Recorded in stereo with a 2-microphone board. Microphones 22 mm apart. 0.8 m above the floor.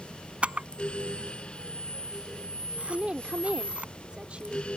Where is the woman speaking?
70° right (ahead or behind).